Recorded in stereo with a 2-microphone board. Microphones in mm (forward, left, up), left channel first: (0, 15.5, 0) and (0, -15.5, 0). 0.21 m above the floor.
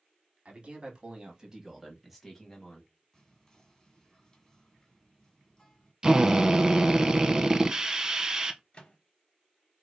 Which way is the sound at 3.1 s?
15° left (ahead or behind).